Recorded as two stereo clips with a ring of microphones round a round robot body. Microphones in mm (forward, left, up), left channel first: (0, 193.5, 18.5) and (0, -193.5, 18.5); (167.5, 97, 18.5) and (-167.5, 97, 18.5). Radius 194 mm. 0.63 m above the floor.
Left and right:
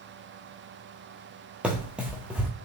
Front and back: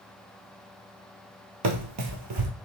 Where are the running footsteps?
175° right, 0.8 m.